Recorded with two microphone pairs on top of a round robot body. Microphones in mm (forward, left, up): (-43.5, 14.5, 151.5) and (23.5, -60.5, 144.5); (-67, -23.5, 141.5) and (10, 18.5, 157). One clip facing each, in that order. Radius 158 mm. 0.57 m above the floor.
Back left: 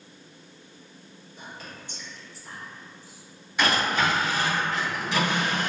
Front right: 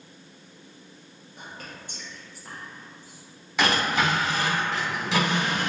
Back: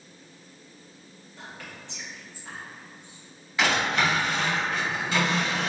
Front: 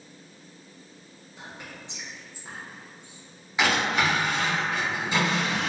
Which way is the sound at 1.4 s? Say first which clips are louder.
Front right 1 dB, even; 50° right.